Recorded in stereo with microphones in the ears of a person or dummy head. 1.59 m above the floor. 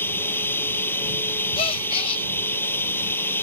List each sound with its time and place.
0.0 s running water: 15° left (ahead or behind)
1.6 s a gasp: 30° left (ahead or behind)